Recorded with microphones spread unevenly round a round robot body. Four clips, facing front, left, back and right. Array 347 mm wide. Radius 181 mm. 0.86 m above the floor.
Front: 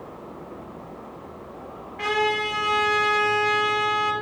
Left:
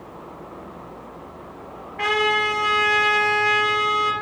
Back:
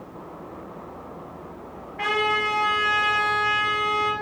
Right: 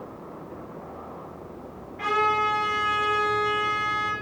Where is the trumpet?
100° left, 3.5 m.